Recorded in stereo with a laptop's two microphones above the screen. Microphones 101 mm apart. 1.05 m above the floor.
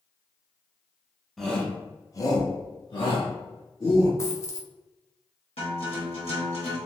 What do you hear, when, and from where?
1.4 s a shout: centre (ahead or behind), 0.6 m; by 4.1 s 50° left (ahead or behind), 1.2 m
4.2 s a dropped coin: 25° left (ahead or behind), 0.6 m
5.6 s a guitar: 80° left, 1.3 m